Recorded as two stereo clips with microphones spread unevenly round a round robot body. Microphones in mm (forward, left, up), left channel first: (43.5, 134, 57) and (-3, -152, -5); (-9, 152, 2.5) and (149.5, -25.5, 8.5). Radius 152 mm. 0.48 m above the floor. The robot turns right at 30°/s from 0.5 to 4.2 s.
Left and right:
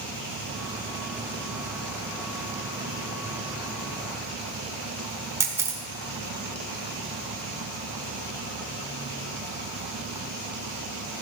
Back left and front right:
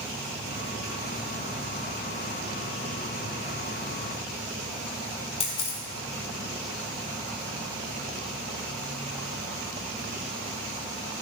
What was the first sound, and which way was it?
A camera shutter, 165° right.